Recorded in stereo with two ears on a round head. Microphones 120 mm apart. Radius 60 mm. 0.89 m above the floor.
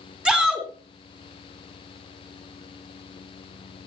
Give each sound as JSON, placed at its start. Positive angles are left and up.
{"t": 0.2, "sound": "a shout", "side_deg": -5, "distance_m": 3.0}